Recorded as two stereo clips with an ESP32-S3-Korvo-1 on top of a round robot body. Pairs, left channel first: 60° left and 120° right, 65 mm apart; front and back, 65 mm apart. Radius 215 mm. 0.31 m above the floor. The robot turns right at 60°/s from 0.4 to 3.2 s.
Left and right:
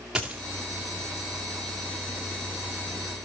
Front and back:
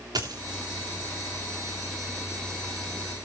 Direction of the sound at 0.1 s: 160° left.